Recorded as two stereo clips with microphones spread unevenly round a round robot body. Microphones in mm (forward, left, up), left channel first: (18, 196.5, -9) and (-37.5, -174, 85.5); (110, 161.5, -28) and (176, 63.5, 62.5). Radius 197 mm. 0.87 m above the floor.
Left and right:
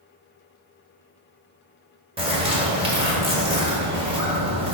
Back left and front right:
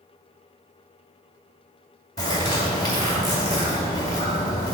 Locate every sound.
2.2 s a bird: 175° right, 2 m